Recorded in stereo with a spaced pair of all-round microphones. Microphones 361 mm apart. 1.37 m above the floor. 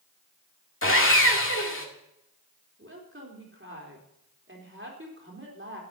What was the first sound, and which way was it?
Sawing, 35° left (ahead or behind).